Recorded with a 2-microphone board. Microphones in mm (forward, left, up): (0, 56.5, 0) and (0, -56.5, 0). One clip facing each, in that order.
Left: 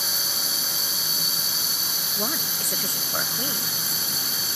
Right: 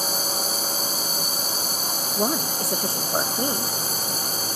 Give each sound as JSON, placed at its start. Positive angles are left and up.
{"t": 0.0, "sound": "a drone", "side_deg": -40}
{"t": 2.2, "sound": "a woman speaking", "side_deg": -30}